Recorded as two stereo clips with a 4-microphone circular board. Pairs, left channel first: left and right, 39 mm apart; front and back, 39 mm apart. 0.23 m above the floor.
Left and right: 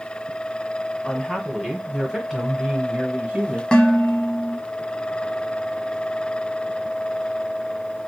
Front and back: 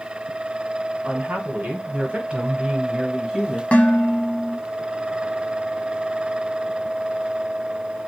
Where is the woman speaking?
150° left, 1.5 m; by 3.6 s 95° right, 1.2 m.